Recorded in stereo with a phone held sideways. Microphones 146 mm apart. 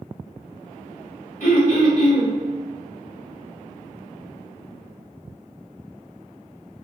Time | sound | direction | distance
1.4 | throat clearing | 70° left (ahead or behind) | 1.7 m